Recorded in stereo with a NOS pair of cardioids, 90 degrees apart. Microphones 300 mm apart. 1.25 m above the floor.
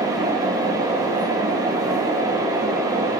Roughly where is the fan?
Ahead.